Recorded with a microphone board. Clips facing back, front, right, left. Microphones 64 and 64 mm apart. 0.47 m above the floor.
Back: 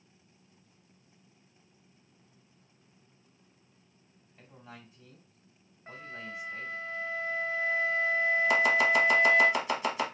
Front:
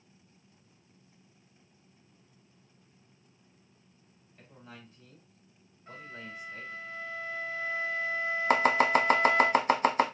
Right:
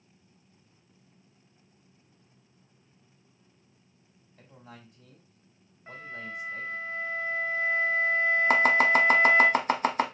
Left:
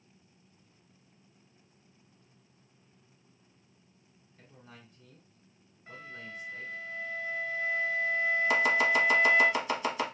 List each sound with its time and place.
4.4 s a man speaking: 100° right, 2.5 m
5.9 s a flute: 135° right, 1.6 m
8.5 s chopping: 45° right, 0.7 m